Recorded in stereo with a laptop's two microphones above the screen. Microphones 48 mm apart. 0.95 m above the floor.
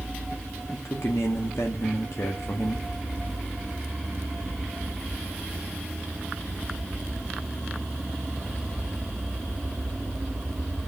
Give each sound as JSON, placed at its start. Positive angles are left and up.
{"t": 0.7, "sound": "a man speaking", "side_deg": 75, "distance_m": 1.7}